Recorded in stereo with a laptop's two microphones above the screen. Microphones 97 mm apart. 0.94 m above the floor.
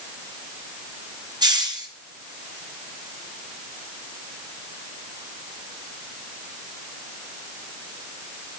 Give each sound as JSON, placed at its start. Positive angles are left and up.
{"t": 1.4, "sound": "a hiss", "side_deg": -40, "distance_m": 1.1}